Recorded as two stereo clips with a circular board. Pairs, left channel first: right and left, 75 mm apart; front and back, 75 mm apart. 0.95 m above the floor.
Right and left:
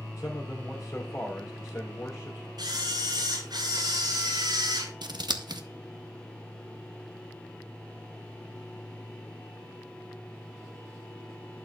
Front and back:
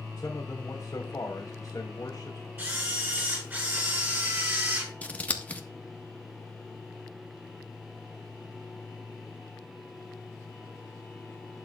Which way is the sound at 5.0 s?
70° left.